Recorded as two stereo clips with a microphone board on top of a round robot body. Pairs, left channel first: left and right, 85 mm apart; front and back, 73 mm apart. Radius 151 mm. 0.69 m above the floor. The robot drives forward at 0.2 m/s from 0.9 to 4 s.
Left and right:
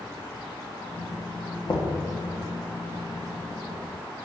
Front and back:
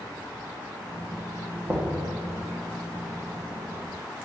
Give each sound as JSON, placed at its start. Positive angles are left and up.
{"t": 1.7, "sound": "knocking", "azimuth_deg": 125, "distance_m": 1.6}